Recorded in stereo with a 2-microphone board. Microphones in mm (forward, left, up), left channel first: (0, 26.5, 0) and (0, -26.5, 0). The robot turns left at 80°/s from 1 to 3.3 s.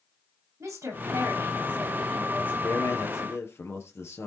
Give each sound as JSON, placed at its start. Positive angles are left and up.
{"t": 0.6, "sound": "a woman speaking", "azimuth_deg": -95, "distance_m": 9.5}
{"t": 2.6, "sound": "a man speaking", "azimuth_deg": 125, "distance_m": 3.5}